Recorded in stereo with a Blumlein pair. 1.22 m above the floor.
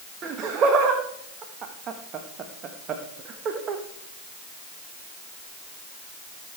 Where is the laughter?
30° right, 1.3 m.